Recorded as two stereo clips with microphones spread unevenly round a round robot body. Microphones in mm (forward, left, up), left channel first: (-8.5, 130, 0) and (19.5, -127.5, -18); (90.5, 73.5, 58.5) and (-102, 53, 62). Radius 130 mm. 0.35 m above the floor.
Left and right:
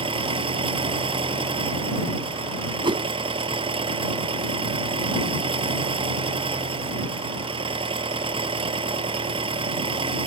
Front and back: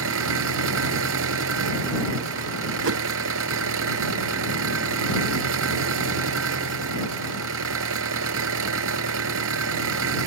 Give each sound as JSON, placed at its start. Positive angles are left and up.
{"t": 0.0, "sound": "an engine running", "azimuth_deg": -155}
{"t": 2.8, "sound": "a whoosh", "azimuth_deg": -155}